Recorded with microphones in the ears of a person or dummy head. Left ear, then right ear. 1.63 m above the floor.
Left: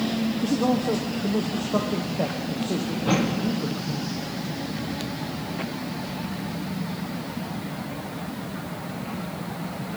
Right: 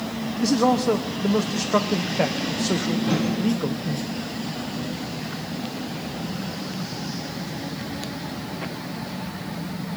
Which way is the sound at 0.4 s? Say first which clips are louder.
Right 6 dB; 60° right (ahead or behind).